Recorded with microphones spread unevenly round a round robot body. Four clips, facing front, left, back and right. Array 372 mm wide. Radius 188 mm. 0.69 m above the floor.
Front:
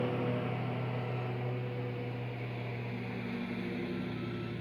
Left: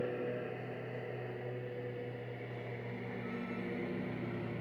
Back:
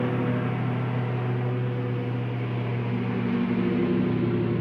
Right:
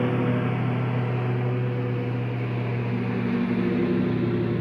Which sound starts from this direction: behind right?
A lawn mower, at 0.0 s.